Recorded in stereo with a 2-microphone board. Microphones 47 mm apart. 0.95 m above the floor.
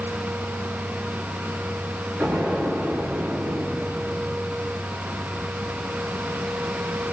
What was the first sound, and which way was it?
An explosion, 45° right (ahead or behind).